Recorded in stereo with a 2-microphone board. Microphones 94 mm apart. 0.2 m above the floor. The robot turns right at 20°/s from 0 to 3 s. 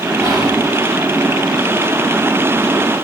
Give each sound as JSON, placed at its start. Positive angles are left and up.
{"t": 0.2, "sound": "whispering", "side_deg": -40, "distance_m": 1.6}